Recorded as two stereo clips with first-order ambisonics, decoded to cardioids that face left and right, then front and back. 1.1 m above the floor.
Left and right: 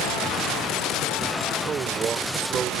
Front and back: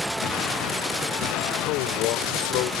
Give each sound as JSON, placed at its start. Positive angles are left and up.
{"t": 1.6, "sound": "a man speaking", "azimuth_deg": -25}